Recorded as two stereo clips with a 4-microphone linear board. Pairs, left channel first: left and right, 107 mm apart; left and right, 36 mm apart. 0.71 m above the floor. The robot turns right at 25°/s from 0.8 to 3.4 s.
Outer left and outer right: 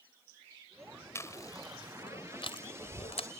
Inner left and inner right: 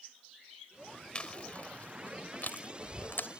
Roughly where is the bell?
I don't hear a bell.